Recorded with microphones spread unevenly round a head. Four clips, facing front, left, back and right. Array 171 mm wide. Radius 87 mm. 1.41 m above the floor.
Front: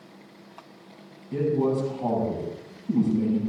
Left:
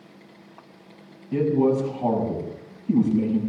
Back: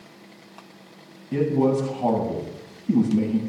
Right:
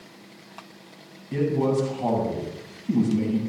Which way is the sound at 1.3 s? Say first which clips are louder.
Left 3 dB, back 3 dB; 165° left.